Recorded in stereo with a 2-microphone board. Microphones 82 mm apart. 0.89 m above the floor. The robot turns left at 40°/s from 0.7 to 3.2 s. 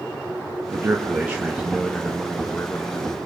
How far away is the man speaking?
About 1.2 m.